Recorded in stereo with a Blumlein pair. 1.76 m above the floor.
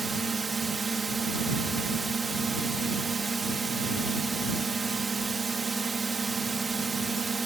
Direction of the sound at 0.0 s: 10° right.